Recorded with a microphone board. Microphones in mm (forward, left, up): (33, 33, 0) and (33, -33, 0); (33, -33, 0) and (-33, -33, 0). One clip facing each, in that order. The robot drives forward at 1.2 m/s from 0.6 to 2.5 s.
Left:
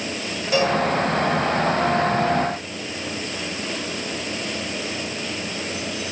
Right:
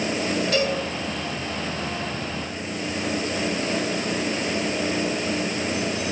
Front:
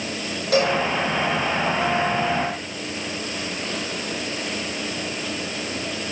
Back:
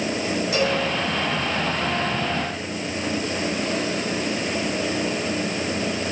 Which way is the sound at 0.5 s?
10° left.